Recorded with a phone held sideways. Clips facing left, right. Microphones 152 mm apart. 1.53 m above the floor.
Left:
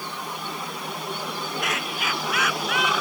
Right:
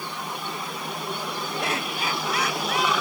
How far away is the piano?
I don't hear a piano.